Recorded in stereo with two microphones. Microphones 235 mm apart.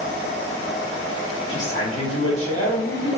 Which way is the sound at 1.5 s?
60° left (ahead or behind).